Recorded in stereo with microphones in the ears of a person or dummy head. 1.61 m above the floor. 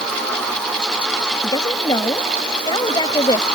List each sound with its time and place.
1.4 s a woman speaking: 25° left (ahead or behind)